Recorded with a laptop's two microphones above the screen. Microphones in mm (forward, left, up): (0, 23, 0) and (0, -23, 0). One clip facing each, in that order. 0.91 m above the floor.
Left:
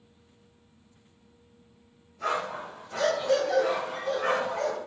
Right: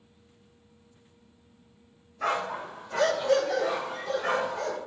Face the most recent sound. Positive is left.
turn(degrees=55)  # may be behind; listen again after turning